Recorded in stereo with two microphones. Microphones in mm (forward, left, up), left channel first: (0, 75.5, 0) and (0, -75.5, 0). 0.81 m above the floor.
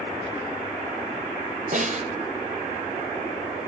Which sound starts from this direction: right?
A snare drum, at 1.7 s.